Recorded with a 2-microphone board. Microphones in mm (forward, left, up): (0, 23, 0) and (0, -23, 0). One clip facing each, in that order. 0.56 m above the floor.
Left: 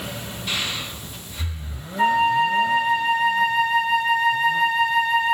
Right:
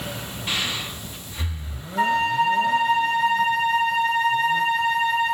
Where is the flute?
65° right (ahead or behind), 7 m.